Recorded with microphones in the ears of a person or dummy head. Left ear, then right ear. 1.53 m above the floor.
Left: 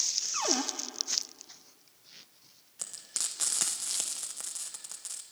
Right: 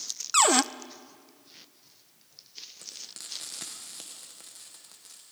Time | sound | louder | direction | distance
0.3 | a cupboard door | right 11 dB | 65° right (ahead or behind) | 0.7 m
2.8 | frying | left 8 dB | 45° left (ahead or behind) | 1.6 m